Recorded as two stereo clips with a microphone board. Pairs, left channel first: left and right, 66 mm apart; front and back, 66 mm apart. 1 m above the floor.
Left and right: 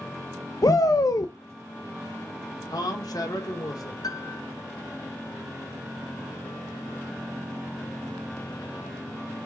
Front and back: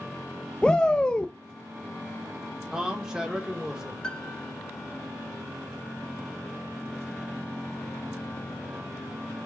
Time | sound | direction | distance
0.6 | a shout | 70° left | 0.6 m
2.7 | a man speaking | 100° left | 2.5 m
4.0 | a piano | 75° left | 0.6 m